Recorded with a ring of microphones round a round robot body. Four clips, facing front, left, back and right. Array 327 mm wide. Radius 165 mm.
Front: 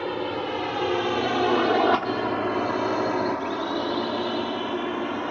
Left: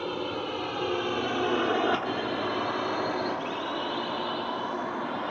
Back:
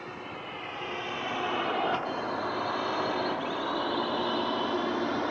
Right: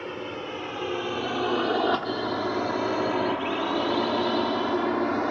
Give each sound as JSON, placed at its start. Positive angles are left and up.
{"t": 0.0, "sound": "a drone", "azimuth_deg": 10}